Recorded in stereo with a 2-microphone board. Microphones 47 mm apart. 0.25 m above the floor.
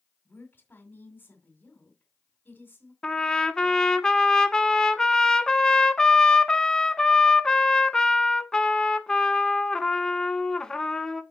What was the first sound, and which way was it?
A woman speaking, 45° left (ahead or behind).